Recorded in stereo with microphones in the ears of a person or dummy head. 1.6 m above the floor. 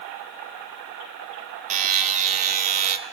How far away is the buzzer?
About 0.9 m.